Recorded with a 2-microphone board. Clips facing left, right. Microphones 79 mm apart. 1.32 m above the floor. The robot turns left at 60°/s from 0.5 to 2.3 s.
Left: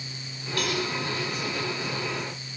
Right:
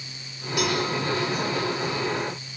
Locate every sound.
0.6 s a cowbell: 15° right (ahead or behind), 5.5 m; by 0.8 s centre (ahead or behind), 5.5 m